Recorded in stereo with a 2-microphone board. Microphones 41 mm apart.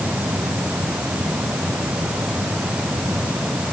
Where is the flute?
I don't hear a flute.